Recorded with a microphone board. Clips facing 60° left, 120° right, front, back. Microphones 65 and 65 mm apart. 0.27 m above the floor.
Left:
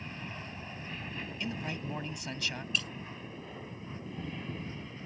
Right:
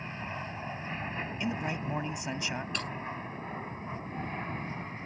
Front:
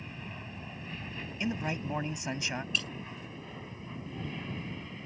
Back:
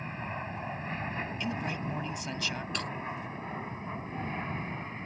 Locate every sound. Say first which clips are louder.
0.0 s an aircraft: right 4 dB, back 7 dB; 165° right; by 5.1 s 145° right
1.4 s a man speaking: right 4 dB, front 4 dB; 60° right
2.7 s breaking glass: even, even; 155° right